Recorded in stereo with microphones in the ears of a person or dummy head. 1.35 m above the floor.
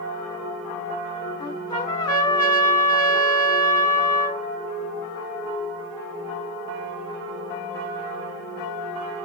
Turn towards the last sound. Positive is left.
turn(degrees=20)  # may be behind; listen again after turning